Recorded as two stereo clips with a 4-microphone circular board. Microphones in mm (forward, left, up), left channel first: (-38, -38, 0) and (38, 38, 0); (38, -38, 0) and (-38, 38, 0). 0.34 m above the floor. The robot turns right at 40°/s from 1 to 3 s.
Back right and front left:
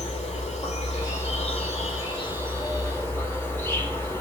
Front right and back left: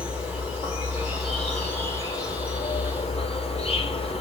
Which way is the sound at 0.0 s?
145° right.